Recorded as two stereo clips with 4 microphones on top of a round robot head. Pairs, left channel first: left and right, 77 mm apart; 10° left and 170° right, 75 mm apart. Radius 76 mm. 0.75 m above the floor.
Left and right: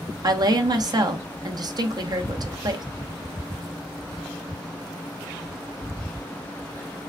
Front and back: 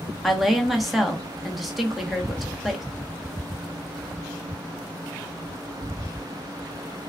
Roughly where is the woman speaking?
Right.